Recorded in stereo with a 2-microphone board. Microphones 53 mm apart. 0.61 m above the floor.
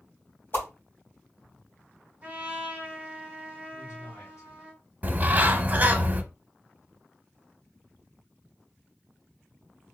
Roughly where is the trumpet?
Right.